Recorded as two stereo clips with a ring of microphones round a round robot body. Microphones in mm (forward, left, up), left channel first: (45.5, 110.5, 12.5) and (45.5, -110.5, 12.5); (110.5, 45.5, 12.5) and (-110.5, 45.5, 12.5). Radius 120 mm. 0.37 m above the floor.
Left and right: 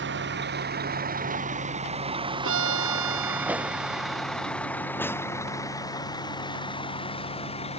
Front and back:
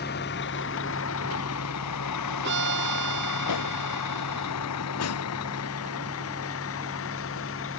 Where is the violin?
130° right.